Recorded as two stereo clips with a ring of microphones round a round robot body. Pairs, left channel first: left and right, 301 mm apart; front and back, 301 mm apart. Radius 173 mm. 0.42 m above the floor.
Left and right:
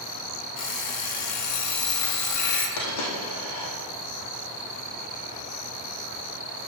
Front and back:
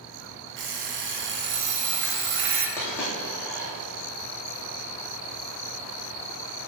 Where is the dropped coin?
85° left, 3.5 m.